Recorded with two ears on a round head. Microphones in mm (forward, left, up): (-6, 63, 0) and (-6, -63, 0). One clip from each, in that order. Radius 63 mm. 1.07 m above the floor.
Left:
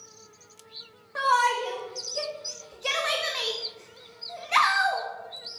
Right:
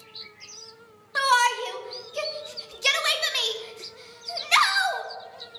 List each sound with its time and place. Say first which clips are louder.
1.1 s a shout: right 2 dB; 60° right (ahead or behind), 1.3 m